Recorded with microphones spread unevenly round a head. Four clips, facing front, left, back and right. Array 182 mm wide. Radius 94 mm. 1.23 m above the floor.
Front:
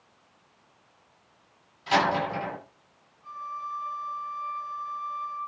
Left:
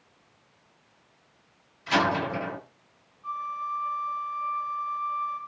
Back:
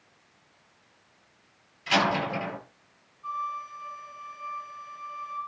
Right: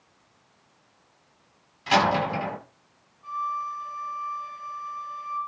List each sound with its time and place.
1.9 s a door slam: 75° right, 8.5 m
3.2 s a flute: 105° right, 4 m